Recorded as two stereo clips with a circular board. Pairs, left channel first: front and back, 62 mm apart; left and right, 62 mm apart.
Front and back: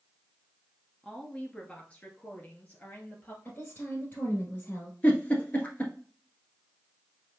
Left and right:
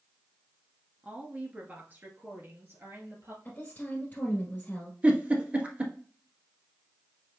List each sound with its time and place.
1.0 s a woman speaking: 60° right, 1.2 m; by 3.4 s 55° right, 2 m
3.5 s a woman speaking: 45° left, 1.9 m
5.0 s a giggle: 40° right, 1.4 m